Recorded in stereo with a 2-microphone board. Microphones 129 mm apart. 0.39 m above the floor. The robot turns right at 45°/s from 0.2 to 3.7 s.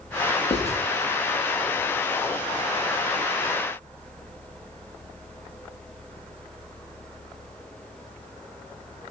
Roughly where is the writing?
Left.